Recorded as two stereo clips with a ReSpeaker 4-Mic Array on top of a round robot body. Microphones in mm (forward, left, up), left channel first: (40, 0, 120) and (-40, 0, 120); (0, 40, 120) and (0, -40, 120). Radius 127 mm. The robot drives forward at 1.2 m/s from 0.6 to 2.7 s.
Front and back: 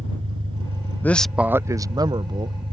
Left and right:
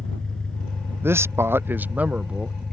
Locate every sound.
0.0 s an engine running: 170° left
1.0 s a man speaking: 50° right; by 2.6 s 170° right